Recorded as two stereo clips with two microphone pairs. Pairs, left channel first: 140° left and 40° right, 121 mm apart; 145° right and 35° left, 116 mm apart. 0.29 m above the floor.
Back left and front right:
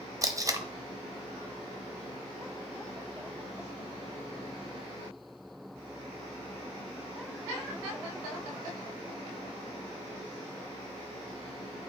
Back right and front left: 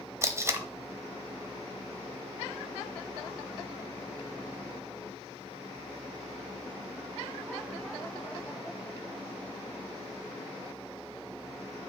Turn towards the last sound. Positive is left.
turn(degrees=-10)